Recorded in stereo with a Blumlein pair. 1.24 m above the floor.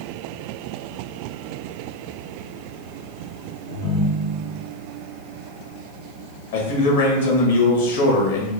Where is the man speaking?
65° left, 1.7 m.